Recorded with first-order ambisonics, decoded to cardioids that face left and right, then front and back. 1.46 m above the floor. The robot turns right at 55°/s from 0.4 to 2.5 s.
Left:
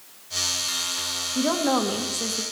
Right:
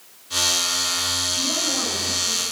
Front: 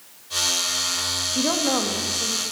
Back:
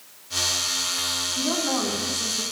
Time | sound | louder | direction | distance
1.4 | a woman speaking | even, front 3 dB | 40° left | 2 m